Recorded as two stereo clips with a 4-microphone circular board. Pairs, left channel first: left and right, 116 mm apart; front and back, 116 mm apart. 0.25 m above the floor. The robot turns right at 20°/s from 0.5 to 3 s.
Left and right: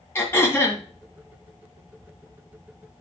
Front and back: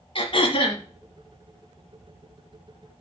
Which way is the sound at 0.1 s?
25° left.